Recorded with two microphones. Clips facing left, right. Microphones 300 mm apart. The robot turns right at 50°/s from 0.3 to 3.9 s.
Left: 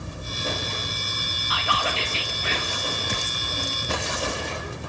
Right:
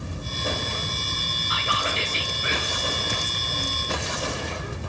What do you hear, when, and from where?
1.5 s whispering: 25° right (ahead or behind), 0.8 m; by 2.8 s 10° right (ahead or behind), 0.8 m